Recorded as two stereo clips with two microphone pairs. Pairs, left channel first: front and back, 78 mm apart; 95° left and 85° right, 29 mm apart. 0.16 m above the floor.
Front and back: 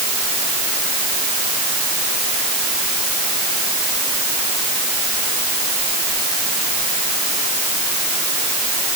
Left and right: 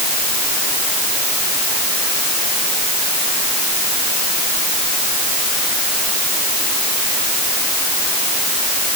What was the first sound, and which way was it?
Only background noise.